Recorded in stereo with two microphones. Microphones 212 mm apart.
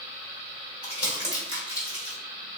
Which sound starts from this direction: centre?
Crumpling, at 0.8 s.